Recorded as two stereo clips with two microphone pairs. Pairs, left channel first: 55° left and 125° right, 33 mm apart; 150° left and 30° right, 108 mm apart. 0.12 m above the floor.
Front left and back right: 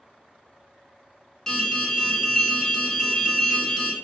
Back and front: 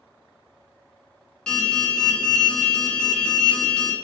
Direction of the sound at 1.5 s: 85° left.